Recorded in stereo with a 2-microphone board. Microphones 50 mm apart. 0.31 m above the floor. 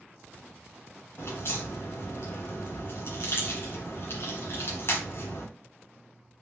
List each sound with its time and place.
1.2 s a crack: 55° left (ahead or behind), 2.0 m